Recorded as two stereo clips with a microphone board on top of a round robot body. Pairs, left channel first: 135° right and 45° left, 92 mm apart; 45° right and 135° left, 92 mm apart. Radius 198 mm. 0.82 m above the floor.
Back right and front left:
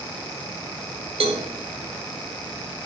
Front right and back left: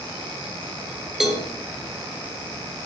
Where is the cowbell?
50° left, 1.8 m.